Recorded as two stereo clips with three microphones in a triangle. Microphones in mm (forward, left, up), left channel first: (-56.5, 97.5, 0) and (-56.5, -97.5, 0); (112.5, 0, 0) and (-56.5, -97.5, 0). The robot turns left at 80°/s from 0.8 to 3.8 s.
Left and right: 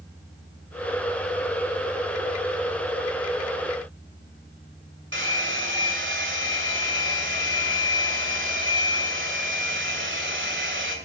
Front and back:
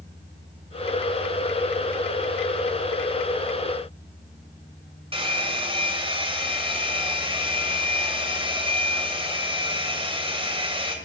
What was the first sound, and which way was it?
A hair dryer, 90° right.